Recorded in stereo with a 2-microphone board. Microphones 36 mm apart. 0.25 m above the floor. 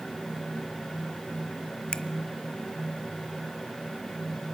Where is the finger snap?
25° left (ahead or behind), 0.9 m.